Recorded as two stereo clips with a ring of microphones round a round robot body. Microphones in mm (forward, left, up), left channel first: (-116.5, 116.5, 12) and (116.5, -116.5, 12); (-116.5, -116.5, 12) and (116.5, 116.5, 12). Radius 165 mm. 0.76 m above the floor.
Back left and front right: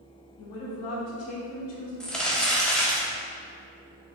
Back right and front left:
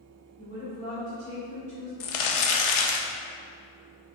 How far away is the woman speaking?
About 1.9 m.